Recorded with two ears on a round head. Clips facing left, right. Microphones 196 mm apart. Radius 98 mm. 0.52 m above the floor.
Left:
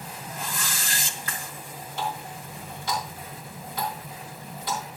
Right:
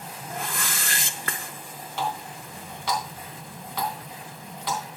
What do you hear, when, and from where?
0.3 s a whoosh: 50° right (ahead or behind), 0.7 m
2.0 s a running tap: 55° right (ahead or behind), 3 m